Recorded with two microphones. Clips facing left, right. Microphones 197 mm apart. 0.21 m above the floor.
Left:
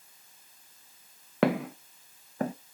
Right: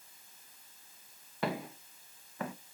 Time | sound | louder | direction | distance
1.4 | footsteps | left 10 dB | 80° left | 0.9 m